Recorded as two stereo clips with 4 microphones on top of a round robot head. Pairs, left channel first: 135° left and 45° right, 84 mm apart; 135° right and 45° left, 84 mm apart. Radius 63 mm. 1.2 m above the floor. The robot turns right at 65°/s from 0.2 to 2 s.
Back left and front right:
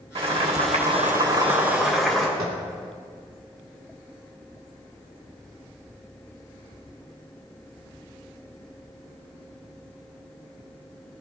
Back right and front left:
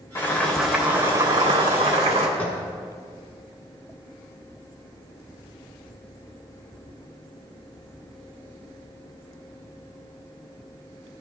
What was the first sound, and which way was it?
Boiling, 75° right.